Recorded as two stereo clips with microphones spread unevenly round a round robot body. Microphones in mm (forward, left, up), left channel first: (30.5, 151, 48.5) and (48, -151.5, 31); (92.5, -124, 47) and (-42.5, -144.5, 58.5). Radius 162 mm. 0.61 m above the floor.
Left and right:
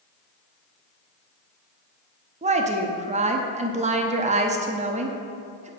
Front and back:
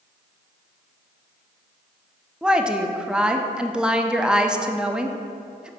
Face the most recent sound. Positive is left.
turn(degrees=-85)